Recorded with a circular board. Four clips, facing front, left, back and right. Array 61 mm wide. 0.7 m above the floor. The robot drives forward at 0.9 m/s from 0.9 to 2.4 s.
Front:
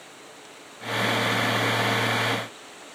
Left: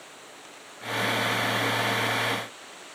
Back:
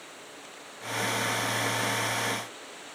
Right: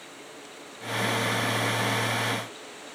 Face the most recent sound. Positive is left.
No sound to turn to.